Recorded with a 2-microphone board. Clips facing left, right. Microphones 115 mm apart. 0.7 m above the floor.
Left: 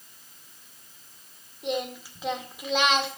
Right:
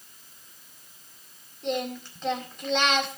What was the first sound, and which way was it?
Singing, 10° left (ahead or behind).